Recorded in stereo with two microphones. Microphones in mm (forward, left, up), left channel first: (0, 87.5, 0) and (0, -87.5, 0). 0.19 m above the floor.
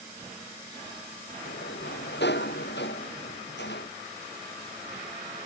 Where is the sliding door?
80° left.